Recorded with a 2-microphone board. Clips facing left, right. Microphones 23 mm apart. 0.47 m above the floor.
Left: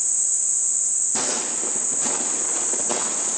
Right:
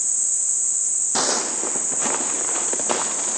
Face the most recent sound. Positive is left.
turn(degrees=-45)  # may be behind; listen again after turning